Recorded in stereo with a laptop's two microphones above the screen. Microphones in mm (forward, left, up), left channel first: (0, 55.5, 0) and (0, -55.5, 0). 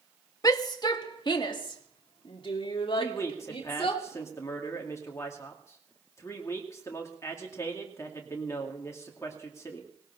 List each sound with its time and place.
0.4 s a shout: 35° left (ahead or behind), 1.1 m; by 4.0 s 55° left (ahead or behind), 3 m
3.0 s a man speaking: 25° left (ahead or behind), 2.5 m